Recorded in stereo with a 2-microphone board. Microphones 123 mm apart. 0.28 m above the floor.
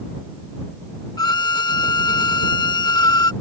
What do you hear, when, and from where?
1.2 s a violin: 35° left (ahead or behind)